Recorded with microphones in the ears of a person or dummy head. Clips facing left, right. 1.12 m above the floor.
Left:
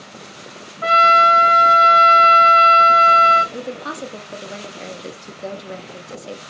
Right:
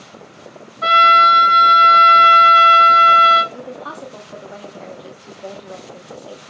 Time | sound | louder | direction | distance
0.8 | a trumpet | left 1 dB | 45° right (ahead or behind) | 0.9 m
3.5 | a woman speaking | left 3 dB | 25° left (ahead or behind) | 0.7 m